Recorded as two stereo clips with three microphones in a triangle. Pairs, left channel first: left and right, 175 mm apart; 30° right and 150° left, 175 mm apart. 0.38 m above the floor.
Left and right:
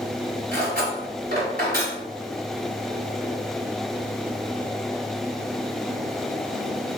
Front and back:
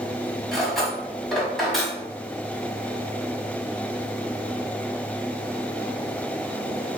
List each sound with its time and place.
0.5 s cutlery clinking: 120° right, 1.3 m